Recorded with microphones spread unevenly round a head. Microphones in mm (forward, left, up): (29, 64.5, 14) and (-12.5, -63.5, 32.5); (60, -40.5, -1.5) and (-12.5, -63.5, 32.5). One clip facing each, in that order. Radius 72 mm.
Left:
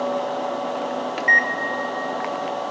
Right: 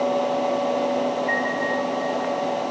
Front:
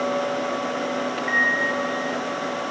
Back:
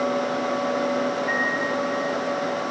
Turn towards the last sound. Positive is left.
turn(degrees=85)